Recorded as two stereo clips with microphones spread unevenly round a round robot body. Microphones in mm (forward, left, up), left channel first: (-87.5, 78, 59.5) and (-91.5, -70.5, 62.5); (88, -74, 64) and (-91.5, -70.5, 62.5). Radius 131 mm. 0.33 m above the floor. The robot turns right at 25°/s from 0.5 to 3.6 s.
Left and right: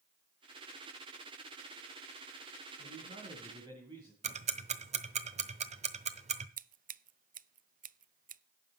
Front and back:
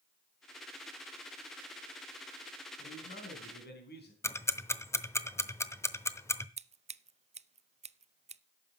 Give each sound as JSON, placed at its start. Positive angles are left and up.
{"t": 2.8, "sound": "a man speaking", "azimuth_deg": -45, "distance_m": 3.5}
{"t": 4.2, "sound": "ticking", "azimuth_deg": -75, "distance_m": 0.9}
{"t": 6.6, "sound": "scissors", "azimuth_deg": -125, "distance_m": 0.5}